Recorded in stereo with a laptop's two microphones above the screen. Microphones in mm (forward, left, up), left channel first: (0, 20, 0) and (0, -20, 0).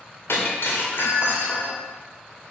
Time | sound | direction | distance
0.3 | breaking glass | 75° left (ahead or behind) | 2 m